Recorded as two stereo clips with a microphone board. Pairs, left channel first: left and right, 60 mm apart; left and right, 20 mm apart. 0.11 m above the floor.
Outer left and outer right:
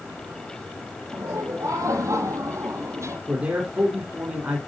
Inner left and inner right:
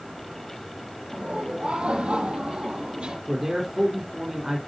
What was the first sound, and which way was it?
Laughter, 70° right (ahead or behind).